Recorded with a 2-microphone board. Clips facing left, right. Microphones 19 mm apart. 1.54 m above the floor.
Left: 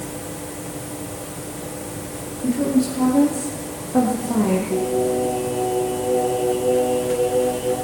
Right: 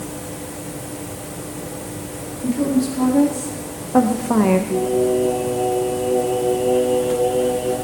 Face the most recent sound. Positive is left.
turn(degrees=-75)  # may be behind; listen again after turning